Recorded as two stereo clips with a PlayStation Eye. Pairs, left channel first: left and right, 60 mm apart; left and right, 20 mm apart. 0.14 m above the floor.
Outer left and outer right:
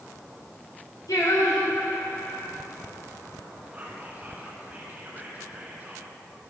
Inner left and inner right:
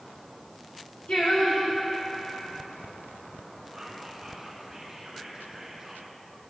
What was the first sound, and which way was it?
Singing, 80° left.